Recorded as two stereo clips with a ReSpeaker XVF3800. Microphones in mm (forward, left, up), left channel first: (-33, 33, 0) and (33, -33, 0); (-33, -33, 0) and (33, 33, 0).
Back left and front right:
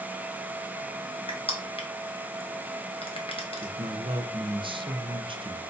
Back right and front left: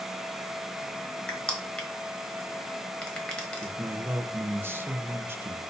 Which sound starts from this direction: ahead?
A man speaking, at 3.6 s.